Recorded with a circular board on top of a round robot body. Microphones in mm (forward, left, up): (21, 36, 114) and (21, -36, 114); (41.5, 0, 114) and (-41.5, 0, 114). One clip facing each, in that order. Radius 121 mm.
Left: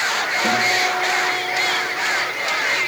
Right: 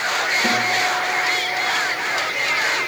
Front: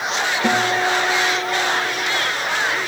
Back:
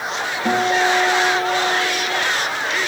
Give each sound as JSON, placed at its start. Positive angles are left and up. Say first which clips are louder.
{"t": 0.4, "sound": "a guitar", "louder": "left 3 dB, back 3 dB", "azimuth_deg": -25, "distance_m": 9.0}